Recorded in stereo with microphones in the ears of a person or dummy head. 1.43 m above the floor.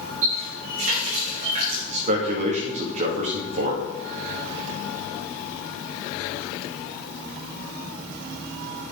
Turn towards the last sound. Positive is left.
turn(degrees=-45)  # may be behind; listen again after turning